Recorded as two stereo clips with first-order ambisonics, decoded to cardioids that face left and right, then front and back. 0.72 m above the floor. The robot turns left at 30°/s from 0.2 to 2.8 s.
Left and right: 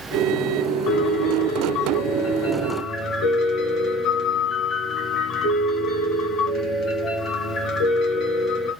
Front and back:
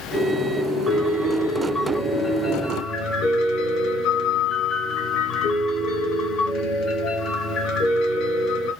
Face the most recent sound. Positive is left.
turn(degrees=45)